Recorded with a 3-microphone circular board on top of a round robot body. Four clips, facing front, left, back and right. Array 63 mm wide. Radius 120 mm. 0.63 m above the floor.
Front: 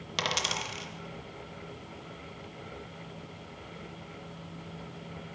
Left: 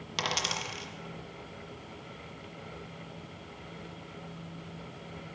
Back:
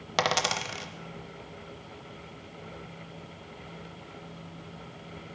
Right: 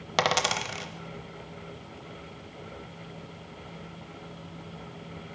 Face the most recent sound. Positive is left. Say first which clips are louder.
# right 8 dB, back 5 dB
turn(degrees=-130)